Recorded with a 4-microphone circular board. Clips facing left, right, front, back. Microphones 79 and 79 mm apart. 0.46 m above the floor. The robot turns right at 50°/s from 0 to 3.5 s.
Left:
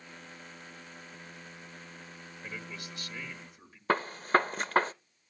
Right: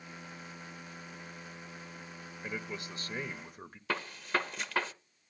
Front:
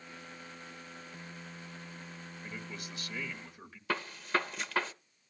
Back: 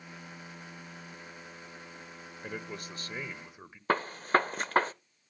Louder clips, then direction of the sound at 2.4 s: Right 4 dB, back 5 dB; 165° right.